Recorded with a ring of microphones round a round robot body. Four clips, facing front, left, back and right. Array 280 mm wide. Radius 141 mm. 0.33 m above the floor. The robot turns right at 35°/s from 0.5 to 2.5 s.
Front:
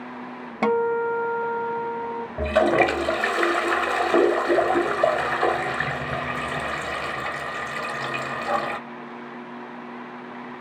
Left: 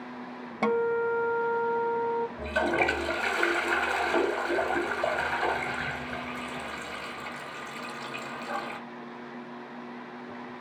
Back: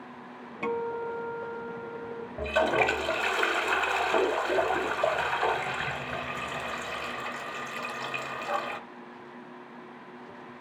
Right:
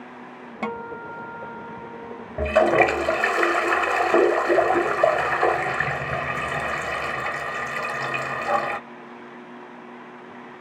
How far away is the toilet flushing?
About 0.8 m.